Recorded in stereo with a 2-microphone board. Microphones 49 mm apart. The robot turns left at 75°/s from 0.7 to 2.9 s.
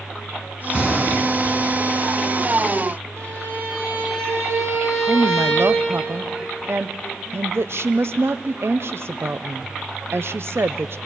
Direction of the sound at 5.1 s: 60° right (ahead or behind).